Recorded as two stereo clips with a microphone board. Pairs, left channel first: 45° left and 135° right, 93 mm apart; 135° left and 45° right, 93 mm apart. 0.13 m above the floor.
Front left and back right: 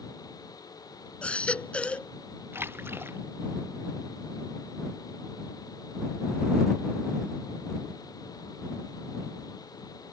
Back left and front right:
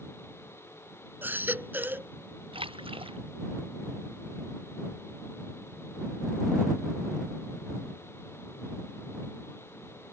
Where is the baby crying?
15° right.